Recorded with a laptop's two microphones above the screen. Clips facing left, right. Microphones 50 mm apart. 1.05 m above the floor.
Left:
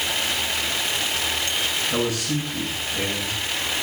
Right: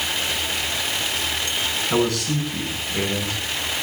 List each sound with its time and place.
1.9 s a man speaking: 65° right (ahead or behind), 9 m